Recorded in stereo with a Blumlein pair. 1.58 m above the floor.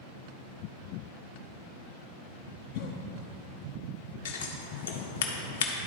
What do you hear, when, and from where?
2.7 s a cough: 45° left, 0.7 m
4.2 s scissors: 60° left, 1.0 m